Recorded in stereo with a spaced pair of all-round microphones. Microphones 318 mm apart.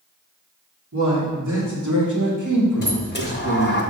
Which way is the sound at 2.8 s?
35° left (ahead or behind).